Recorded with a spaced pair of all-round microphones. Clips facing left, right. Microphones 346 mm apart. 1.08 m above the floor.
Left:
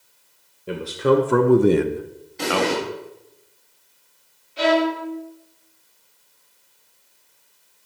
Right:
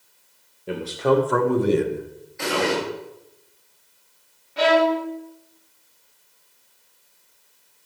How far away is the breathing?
I don't hear breathing.